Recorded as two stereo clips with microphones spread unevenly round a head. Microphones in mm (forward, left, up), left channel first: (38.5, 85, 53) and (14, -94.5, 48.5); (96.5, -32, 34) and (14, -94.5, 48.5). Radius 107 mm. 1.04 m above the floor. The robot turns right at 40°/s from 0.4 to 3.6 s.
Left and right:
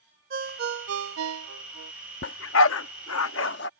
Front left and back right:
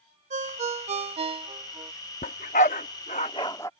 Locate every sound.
0.3 s a ringtone: 145° right; by 1.9 s 85° right
2.2 s a dog barking: 60° left; by 3.7 s 115° left